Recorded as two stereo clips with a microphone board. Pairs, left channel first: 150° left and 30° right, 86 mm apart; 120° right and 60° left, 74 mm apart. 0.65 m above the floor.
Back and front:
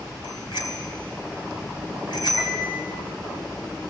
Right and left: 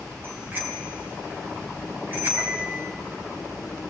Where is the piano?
120° left, 4 m.